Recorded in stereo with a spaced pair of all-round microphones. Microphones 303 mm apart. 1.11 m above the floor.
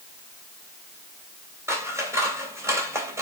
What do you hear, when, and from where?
1.7 s scissors: 10° right (ahead or behind), 3 m